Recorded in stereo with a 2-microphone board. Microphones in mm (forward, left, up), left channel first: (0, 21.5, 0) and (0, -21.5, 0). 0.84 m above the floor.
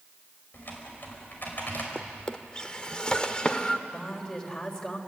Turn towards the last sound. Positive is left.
turn(degrees=25)  # may be behind; listen again after turning